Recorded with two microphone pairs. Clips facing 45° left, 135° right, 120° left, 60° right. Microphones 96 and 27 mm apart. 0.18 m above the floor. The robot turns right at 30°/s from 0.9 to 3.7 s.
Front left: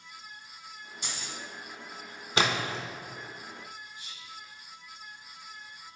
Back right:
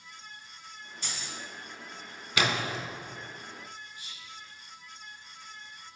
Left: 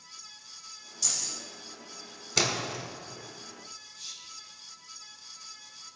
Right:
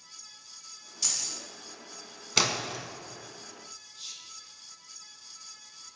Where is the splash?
Straight ahead, 0.7 m; by 2.8 s 15° left, 0.7 m.